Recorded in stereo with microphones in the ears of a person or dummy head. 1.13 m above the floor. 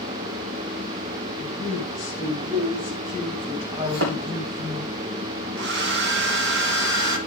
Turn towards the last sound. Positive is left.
turn(degrees=-65)  # may be behind; listen again after turning